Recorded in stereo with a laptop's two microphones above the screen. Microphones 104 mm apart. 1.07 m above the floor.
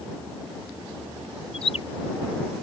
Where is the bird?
65° left (ahead or behind).